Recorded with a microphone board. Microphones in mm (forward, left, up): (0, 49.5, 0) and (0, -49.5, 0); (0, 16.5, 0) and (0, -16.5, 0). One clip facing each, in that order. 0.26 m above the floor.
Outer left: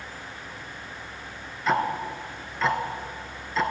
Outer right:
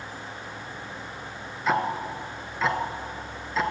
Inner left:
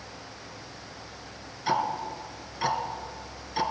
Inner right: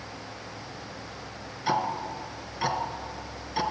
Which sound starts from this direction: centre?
Ticking, at 1.7 s.